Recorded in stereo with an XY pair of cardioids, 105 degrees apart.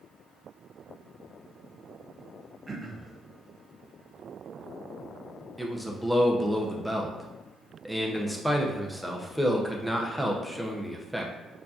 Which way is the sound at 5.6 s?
Straight ahead.